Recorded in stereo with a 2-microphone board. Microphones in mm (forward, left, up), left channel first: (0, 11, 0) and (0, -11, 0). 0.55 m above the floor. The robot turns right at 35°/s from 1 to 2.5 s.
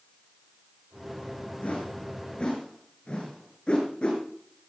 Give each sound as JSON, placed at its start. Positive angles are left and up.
{"t": 1.6, "sound": "a whoosh", "side_deg": 80, "distance_m": 7.0}